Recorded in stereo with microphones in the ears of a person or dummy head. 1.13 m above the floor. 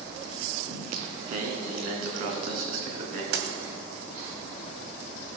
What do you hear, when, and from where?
0.7 s singing: 55° right (ahead or behind), 2.5 m
3.3 s a dropped coin: 65° right (ahead or behind), 2.0 m